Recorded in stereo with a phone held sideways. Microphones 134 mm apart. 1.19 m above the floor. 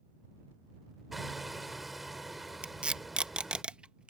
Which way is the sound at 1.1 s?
Centre (ahead or behind).